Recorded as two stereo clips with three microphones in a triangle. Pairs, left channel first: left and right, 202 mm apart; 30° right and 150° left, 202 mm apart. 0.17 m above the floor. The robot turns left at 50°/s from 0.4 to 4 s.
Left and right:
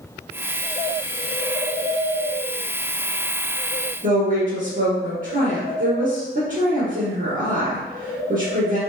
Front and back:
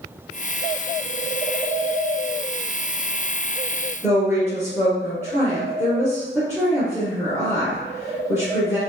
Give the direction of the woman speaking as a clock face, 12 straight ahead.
4 o'clock.